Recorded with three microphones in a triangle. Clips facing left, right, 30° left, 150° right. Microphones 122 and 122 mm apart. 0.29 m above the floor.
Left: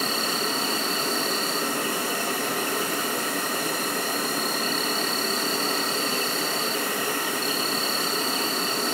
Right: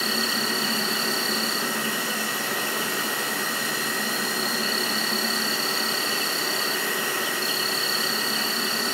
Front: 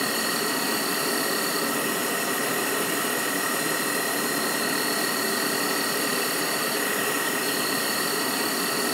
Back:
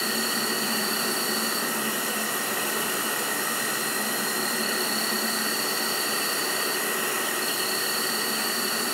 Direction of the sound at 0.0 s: 50° left.